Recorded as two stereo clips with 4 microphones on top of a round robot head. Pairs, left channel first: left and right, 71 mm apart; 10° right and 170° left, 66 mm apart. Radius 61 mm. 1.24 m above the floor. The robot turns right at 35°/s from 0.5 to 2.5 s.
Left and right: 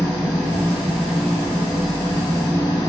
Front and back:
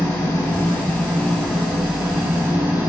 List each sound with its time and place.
0.0 s an engine running: 40° left, 1.5 m; by 2.9 s 110° left, 1.5 m